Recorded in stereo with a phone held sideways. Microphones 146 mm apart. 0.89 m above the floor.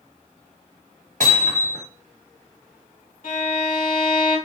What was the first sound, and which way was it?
Hammering, 70° right (ahead or behind).